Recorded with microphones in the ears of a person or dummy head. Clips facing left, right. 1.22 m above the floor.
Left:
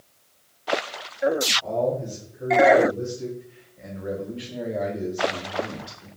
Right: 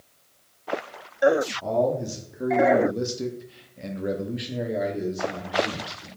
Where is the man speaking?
70° right (ahead or behind), 1.3 m; by 6.1 s 10° left (ahead or behind), 1.8 m.